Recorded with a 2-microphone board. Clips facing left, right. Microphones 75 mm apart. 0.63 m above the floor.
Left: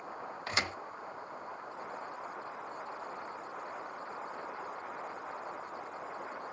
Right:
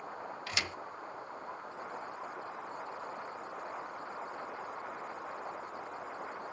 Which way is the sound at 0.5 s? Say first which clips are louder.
Left 4 dB; 40° left (ahead or behind).